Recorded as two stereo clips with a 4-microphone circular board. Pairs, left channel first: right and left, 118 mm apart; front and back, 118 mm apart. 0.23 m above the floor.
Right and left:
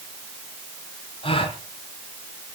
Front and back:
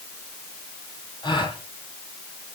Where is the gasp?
50° right, 4.5 m.